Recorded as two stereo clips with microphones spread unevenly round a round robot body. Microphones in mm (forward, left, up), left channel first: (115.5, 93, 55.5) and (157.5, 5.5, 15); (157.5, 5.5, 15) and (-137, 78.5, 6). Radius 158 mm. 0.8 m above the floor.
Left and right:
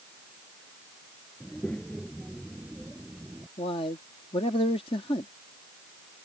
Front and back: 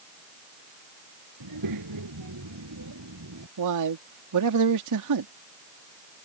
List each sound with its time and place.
1.4 s a child speaking: 160° right; by 3.5 s 145° right
3.6 s a man speaking: 175° left